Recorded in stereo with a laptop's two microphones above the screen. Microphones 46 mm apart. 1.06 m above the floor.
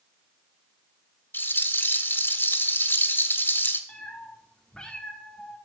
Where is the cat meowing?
15° left (ahead or behind), 1.4 m.